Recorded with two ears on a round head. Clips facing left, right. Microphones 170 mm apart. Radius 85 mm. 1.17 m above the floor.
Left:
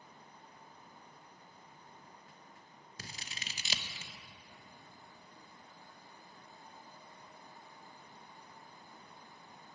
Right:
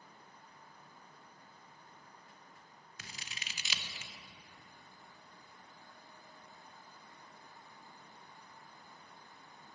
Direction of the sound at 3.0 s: 30° left (ahead or behind).